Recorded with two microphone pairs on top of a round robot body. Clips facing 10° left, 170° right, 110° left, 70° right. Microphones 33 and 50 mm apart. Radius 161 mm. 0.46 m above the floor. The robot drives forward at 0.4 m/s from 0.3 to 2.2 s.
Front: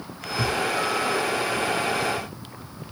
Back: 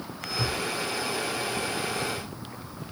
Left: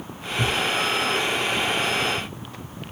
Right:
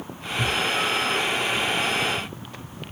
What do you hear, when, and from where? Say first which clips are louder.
0.4 s a thud: front 5 dB, left 1 dB; 20° left, 4.5 m